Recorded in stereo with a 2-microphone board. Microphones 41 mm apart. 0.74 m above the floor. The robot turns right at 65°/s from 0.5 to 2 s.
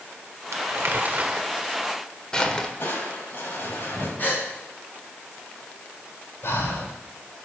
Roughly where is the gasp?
Left.